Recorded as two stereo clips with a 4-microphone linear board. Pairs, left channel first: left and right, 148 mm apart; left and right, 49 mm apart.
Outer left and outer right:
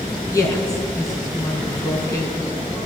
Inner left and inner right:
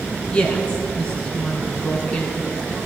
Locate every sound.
0.3 s a woman speaking: 20° left (ahead or behind), 3 m